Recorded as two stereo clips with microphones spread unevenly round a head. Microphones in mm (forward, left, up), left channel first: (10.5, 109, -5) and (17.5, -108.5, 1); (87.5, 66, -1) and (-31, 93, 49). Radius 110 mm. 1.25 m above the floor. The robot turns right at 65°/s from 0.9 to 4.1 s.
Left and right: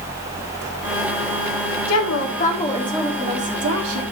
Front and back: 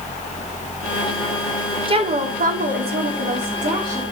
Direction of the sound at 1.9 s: 115° left.